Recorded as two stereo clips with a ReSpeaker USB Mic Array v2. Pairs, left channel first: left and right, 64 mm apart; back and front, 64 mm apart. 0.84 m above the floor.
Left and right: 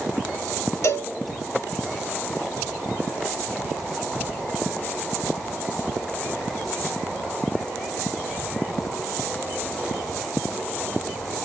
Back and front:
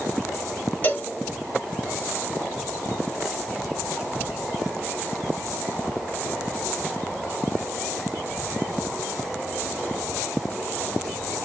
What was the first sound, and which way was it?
A cowbell, 120° left.